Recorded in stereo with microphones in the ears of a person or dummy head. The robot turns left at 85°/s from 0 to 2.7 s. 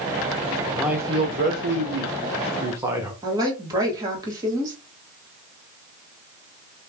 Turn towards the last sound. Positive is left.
turn(degrees=-25)  # may be behind; listen again after turning